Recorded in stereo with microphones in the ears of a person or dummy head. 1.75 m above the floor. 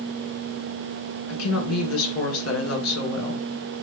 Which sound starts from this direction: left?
A woman speaking, at 1.3 s.